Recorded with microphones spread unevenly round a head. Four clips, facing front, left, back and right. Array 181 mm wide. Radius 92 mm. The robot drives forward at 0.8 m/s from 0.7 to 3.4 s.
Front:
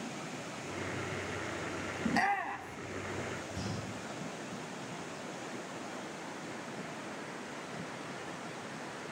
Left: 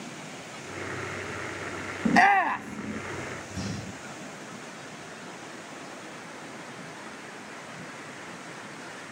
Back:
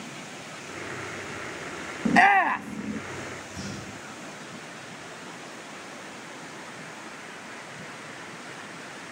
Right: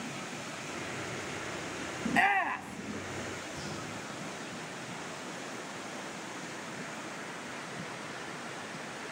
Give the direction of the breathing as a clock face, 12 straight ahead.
9 o'clock.